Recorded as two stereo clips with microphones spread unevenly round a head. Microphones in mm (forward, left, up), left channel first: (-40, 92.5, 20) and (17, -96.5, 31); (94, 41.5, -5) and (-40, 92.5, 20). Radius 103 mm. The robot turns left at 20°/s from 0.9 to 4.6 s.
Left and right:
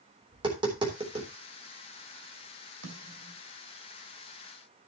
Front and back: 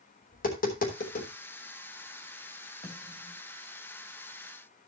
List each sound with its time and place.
0.3 s tapping: 5° right, 3.5 m; by 1.3 s 15° right, 3.5 m
2.8 s a snare drum: 75° right, 2.5 m; by 3.4 s 90° right, 2.5 m